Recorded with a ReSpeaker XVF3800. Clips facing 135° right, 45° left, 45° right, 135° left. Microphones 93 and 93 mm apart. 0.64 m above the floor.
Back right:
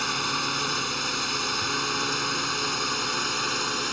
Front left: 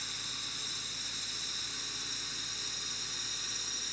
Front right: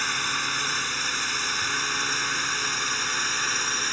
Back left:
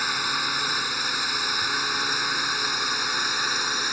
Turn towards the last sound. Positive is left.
turn(degrees=-145)